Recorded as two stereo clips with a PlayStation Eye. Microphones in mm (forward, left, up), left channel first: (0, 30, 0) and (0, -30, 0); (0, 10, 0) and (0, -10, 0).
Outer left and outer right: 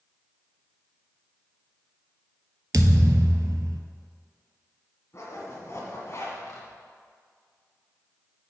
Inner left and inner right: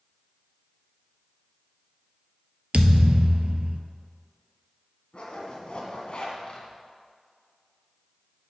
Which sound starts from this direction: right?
A thud, at 2.7 s.